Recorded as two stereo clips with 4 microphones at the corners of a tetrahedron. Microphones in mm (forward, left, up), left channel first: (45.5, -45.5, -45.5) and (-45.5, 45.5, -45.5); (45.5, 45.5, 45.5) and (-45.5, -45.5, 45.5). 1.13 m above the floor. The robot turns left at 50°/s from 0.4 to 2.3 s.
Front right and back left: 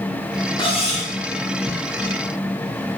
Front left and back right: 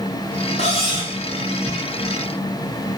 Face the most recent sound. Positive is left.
turn(degrees=-75)